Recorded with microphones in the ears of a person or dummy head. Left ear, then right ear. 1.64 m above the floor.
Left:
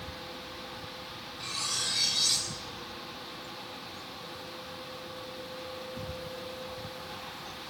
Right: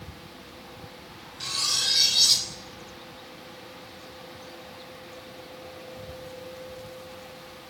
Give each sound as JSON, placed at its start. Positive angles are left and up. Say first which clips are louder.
{"t": 1.4, "sound": "cutlery clinking", "louder": "right 7 dB", "side_deg": -25, "distance_m": 3.5}